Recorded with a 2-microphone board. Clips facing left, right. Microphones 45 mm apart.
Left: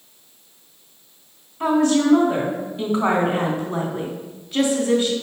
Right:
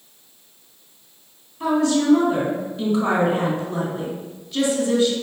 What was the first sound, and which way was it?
A woman speaking, 40° left (ahead or behind).